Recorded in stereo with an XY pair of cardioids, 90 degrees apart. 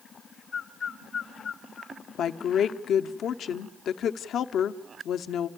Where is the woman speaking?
70° left, 1.0 m.